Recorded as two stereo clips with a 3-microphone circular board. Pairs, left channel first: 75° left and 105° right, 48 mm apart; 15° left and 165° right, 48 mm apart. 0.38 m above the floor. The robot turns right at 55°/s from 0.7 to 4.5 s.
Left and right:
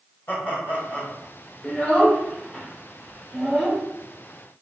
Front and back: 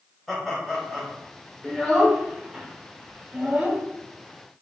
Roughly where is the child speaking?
Left.